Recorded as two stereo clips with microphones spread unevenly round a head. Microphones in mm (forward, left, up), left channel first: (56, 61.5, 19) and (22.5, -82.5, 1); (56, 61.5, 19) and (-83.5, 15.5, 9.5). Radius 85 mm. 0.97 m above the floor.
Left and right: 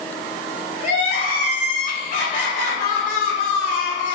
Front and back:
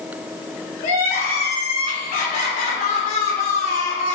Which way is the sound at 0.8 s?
45° left.